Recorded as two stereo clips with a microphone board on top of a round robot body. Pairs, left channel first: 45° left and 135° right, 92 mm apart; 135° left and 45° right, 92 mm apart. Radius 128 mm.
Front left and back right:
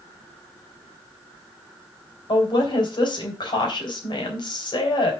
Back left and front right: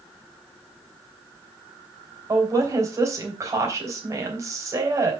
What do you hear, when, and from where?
2.3 s a woman speaking: 10° left, 3.5 m